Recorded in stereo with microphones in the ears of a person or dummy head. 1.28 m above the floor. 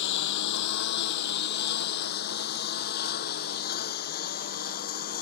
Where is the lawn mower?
70° left (ahead or behind); by 5.2 s 55° left (ahead or behind).